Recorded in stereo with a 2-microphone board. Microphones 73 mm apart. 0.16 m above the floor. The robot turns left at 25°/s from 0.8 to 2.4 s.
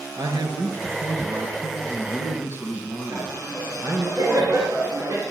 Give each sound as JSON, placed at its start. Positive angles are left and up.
{"t": 0.2, "sound": "a man speaking", "azimuth_deg": -100, "distance_m": 3.0}
{"t": 3.1, "sound": "laughter", "side_deg": -40, "distance_m": 2.5}